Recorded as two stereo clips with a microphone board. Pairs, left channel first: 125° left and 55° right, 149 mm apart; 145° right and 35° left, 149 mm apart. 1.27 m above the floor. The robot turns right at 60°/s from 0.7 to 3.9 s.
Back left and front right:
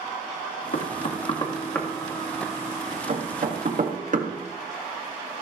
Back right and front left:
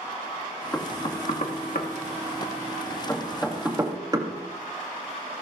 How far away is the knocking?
About 1.8 m.